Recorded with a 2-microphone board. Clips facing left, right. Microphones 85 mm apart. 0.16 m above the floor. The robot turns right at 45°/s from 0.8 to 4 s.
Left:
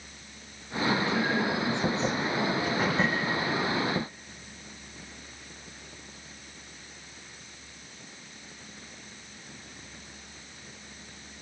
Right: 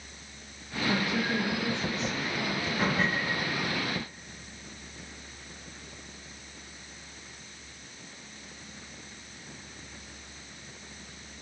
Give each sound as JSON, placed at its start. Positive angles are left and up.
{"t": 0.9, "sound": "a woman speaking", "azimuth_deg": -15, "distance_m": 3.5}
{"t": 2.6, "sound": "a door slam", "side_deg": 15, "distance_m": 8.0}